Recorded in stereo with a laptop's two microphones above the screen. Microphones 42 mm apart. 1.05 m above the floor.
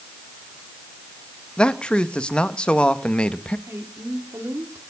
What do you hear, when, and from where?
1.6 s a man speaking: 25° left (ahead or behind), 1.4 m
3.7 s a woman speaking: 80° right, 3 m